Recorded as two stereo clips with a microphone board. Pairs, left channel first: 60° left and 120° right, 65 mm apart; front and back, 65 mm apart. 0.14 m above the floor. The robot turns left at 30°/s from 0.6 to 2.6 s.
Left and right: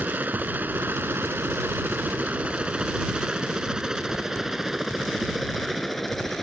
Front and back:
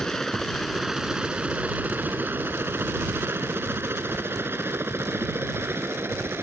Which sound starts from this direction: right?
A helicopter, at 0.0 s.